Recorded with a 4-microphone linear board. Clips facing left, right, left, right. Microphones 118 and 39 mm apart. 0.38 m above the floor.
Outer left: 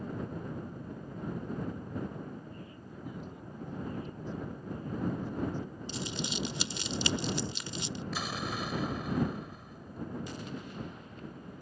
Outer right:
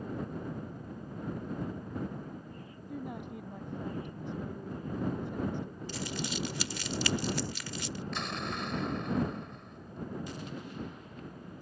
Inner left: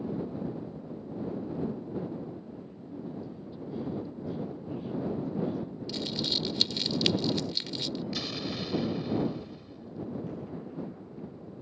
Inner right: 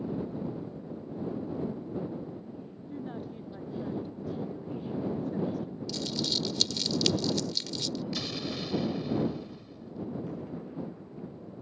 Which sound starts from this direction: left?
Crumpling, at 5.9 s.